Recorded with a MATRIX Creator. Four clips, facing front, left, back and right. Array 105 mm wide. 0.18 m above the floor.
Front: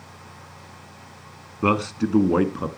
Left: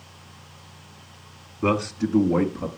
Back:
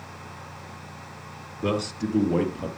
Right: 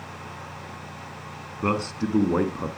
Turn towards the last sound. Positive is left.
turn(degrees=-20)